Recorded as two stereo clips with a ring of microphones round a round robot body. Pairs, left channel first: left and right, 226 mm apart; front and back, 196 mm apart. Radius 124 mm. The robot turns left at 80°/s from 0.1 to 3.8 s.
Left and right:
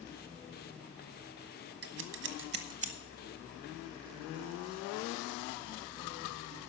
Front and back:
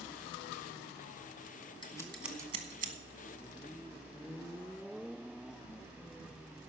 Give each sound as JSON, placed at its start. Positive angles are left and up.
{"t": 1.8, "sound": "scissors", "azimuth_deg": -60, "distance_m": 1.2}